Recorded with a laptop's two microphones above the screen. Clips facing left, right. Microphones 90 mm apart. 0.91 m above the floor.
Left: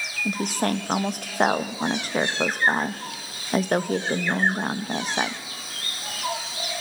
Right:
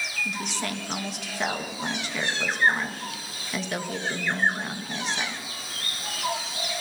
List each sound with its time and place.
0.2 s a woman speaking: 45° left (ahead or behind), 0.7 m